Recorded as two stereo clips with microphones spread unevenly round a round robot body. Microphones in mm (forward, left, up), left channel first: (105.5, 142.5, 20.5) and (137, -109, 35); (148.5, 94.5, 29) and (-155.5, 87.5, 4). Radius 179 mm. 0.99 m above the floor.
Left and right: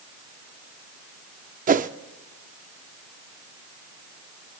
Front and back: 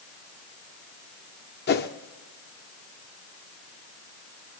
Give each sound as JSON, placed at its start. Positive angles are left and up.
{"t": 1.7, "sound": "a whoosh", "azimuth_deg": -40, "distance_m": 0.7}